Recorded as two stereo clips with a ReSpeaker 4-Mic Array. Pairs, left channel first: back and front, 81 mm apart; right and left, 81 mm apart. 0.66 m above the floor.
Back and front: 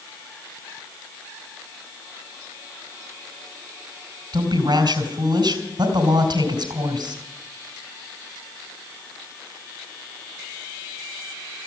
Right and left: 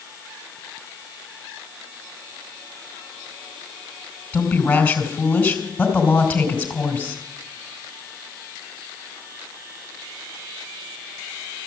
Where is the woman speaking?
20° right, 3 m.